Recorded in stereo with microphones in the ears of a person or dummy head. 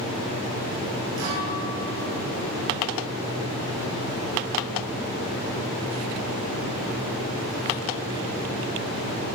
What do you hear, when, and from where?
1.2 s a guitar: 80° right, 4 m